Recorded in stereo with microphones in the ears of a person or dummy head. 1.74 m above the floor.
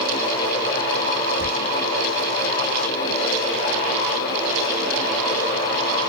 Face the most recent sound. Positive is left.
turn(degrees=-15)  # may be behind; listen again after turning